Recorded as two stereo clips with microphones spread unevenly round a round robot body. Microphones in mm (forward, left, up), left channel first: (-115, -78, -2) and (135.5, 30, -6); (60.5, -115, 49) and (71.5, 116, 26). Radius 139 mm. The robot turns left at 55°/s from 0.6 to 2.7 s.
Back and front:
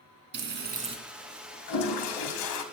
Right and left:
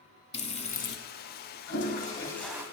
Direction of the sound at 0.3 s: 30° right.